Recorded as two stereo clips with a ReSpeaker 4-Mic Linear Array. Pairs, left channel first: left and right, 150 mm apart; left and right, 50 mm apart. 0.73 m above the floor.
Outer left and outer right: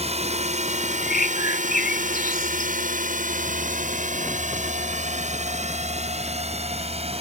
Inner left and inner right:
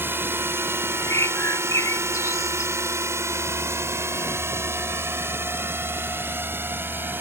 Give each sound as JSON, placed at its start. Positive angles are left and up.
{"t": 0.0, "sound": "a drone", "side_deg": -45}
{"t": 1.0, "sound": "a bird", "side_deg": 80}